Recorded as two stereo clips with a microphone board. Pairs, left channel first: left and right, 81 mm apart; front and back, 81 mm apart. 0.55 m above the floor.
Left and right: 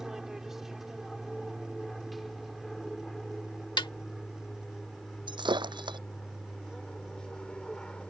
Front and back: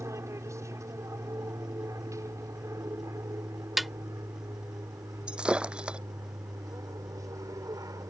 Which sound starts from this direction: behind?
An aircraft, at 0.0 s.